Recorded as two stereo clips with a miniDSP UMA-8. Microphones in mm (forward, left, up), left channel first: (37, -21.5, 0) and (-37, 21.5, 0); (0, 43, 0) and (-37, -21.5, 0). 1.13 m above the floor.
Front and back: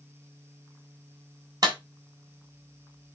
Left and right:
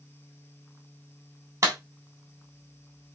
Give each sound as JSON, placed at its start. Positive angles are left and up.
{"t": 1.6, "sound": "a clap", "azimuth_deg": -165, "distance_m": 4.0}